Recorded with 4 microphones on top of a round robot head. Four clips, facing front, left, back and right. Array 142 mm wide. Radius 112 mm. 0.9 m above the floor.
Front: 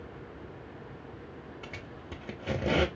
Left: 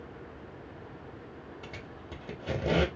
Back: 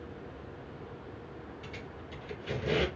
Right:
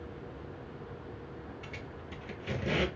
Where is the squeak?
35° left, 0.7 m.